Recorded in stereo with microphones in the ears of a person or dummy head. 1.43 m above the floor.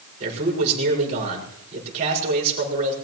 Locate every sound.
0.2 s a man speaking: 40° right (ahead or behind), 5.5 m